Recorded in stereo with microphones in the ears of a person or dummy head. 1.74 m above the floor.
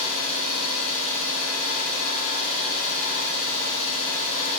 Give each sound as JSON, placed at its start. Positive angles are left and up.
{"t": 0.0, "sound": "an engine running", "side_deg": 60, "distance_m": 1.6}